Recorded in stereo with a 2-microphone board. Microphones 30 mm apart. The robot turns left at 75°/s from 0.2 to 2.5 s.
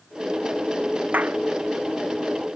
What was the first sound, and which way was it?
A clap, 65° right (ahead or behind).